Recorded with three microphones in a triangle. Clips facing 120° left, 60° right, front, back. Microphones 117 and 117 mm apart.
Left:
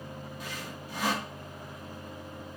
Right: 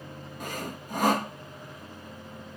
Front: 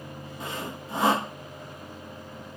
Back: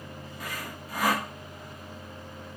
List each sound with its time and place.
0.4 s sawing: 55° right, 0.6 m